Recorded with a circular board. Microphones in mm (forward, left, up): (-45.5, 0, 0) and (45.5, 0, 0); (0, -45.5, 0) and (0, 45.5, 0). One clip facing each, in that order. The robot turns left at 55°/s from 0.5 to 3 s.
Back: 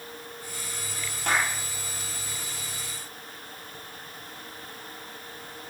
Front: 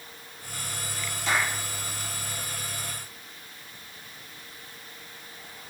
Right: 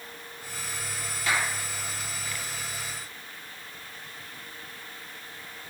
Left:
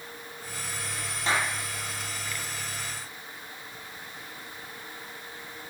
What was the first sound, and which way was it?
A clap, 150° left.